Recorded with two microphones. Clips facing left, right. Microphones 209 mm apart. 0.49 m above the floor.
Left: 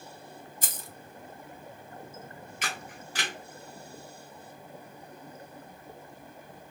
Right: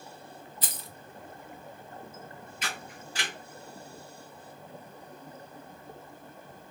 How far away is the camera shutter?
About 2 m.